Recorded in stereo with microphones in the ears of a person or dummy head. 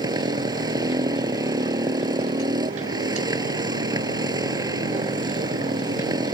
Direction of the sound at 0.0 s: 20° right (ahead or behind).